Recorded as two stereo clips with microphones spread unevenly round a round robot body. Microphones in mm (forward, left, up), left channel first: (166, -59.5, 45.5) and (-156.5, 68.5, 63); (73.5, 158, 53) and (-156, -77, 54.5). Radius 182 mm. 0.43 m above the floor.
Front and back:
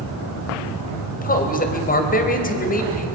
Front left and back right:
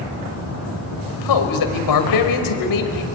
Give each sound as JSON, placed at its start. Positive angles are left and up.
{"t": 1.1, "sound": "a man speaking", "azimuth_deg": 40, "distance_m": 2.5}